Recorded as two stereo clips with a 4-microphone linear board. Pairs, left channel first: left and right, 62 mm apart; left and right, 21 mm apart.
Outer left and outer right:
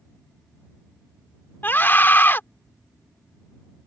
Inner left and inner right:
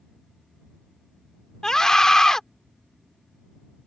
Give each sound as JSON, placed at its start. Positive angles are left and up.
{"t": 1.6, "sound": "a scream", "side_deg": 35}